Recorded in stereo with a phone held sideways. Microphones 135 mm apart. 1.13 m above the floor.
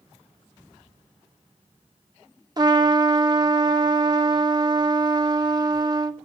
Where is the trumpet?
30° right (ahead or behind), 1.0 m.